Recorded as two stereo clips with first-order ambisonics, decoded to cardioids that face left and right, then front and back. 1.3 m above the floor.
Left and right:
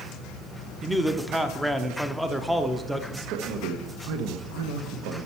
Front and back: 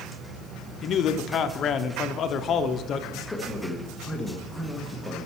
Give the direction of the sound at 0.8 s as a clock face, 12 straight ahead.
12 o'clock.